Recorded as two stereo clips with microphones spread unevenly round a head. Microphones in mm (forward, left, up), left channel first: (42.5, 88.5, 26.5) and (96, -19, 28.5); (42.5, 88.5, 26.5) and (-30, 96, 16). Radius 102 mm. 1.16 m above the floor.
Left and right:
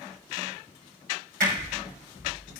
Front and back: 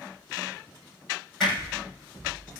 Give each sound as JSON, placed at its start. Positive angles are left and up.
{"t": 1.4, "sound": "hammering", "azimuth_deg": -95, "distance_m": 7.5}